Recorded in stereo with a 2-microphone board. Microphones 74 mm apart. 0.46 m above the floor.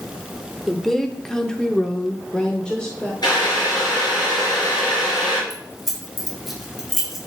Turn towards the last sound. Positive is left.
turn(degrees=0)  # may be behind; listen again after turning